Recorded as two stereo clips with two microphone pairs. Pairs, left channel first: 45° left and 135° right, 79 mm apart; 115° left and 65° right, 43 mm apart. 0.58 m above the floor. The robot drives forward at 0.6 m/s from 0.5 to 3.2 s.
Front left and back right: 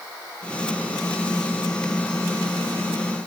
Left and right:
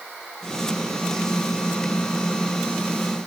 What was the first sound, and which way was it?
Only background noise.